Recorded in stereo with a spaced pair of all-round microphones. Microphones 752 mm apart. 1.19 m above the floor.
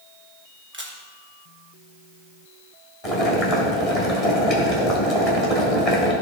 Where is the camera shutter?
15° right (ahead or behind), 1.3 m.